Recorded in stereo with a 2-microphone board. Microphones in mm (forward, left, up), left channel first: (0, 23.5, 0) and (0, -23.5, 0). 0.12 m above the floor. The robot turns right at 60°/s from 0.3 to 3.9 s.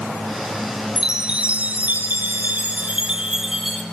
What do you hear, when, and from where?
1.0 s a chime: 165° right, 1.7 m; by 3.8 s 10° left, 1.7 m